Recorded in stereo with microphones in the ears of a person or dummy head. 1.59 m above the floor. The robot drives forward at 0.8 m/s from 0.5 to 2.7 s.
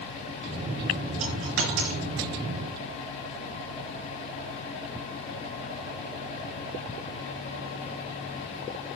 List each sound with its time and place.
1.2 s a dropped coin: 70° right (ahead or behind), 4 m; by 2.0 s 65° right (ahead or behind), 4 m